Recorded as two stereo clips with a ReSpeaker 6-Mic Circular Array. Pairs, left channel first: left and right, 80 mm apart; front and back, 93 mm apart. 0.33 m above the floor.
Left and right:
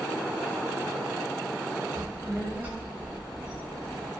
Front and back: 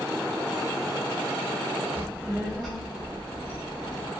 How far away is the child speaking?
About 0.9 m.